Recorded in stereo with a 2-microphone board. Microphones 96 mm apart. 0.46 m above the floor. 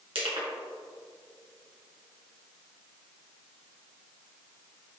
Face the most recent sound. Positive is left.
turn(degrees=-70)  # may be behind; listen again after turning